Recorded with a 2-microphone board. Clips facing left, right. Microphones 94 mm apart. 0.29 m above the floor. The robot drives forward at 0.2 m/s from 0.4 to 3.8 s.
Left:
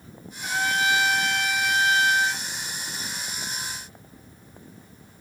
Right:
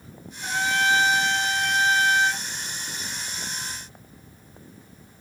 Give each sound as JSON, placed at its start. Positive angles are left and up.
{"t": 0.4, "sound": "a trumpet", "side_deg": -30, "distance_m": 2.0}